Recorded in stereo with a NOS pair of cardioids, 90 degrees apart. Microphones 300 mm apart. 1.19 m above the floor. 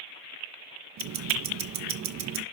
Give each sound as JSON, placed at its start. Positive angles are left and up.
{"t": 1.0, "sound": "ticking", "azimuth_deg": -65, "distance_m": 1.0}